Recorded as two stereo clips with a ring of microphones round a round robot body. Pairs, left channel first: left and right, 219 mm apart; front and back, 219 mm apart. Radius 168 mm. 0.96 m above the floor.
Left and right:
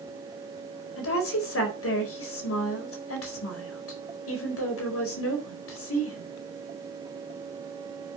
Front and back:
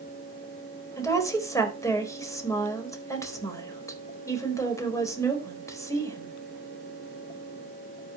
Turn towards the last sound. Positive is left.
turn(degrees=75)